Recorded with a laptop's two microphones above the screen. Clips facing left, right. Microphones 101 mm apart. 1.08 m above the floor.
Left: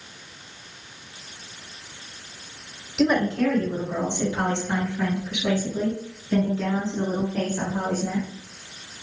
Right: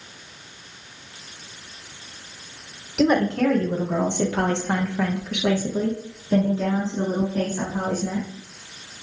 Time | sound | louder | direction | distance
3.0 | a woman speaking | right 2 dB | 55° right (ahead or behind) | 1.5 m